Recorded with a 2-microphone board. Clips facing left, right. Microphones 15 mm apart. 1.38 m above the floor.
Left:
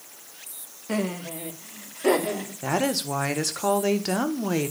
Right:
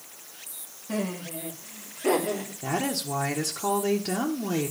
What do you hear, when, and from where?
0.9 s laughter: 60° left (ahead or behind), 1.7 m; by 2.5 s 55° left (ahead or behind), 4 m
2.6 s a woman speaking: 30° left (ahead or behind), 1.2 m